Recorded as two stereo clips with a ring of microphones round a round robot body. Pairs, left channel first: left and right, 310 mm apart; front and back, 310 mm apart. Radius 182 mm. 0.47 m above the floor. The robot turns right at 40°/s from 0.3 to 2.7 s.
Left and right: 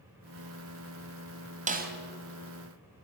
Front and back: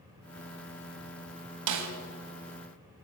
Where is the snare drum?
155° right, 2.5 m; by 1.9 s 145° right, 2.5 m.